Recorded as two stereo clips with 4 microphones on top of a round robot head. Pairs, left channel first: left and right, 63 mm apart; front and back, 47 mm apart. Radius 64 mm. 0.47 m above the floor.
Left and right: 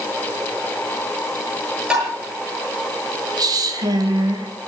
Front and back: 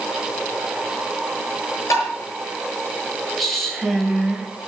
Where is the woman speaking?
90° right, 2.5 m.